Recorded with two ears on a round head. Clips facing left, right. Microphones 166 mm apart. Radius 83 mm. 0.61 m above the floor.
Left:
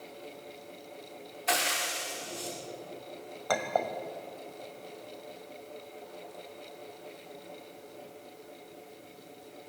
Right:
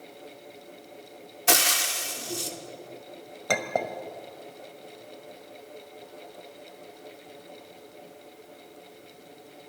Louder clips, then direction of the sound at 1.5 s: Right 4 dB; 55° right (ahead or behind).